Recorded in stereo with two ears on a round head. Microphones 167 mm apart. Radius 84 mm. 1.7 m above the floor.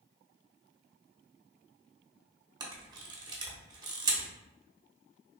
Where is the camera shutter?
20° right (ahead or behind), 0.7 m.